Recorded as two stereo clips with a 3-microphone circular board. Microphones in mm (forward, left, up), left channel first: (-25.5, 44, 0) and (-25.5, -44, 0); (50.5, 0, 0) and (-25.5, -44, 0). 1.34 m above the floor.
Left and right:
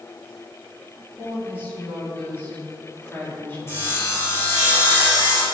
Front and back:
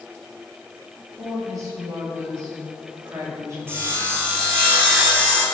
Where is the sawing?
150° left, 2.5 m.